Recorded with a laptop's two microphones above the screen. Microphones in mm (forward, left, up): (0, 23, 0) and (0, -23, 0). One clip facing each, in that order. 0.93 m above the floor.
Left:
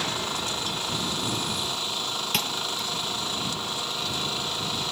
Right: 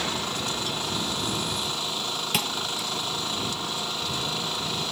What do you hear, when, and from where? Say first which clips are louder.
2.3 s a thud: right 1 dB; 5° right (ahead or behind)